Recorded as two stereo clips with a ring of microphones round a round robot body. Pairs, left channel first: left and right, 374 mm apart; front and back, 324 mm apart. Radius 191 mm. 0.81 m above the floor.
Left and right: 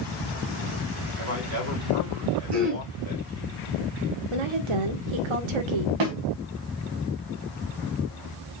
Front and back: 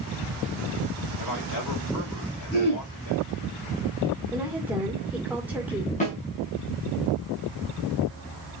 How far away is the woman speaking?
About 1.9 m.